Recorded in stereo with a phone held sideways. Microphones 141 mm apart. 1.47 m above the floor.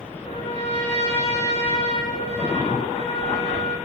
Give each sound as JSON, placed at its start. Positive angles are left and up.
{"t": 0.2, "sound": "a trumpet", "side_deg": 50, "distance_m": 7.0}